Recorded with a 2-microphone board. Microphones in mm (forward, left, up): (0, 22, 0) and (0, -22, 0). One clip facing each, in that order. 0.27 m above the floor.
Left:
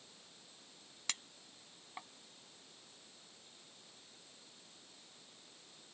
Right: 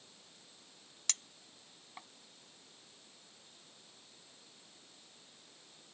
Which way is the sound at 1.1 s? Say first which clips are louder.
Left 1 dB; 15° left (ahead or behind).